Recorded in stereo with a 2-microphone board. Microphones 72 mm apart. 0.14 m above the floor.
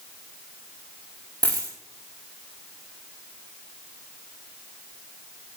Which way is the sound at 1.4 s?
60° right (ahead or behind).